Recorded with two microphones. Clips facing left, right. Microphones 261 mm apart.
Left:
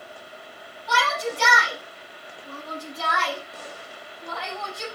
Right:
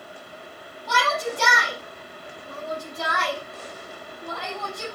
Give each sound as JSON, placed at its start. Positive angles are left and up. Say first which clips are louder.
{"t": 0.9, "sound": "a shout", "louder": "right 1 dB", "side_deg": -50, "distance_m": 5.5}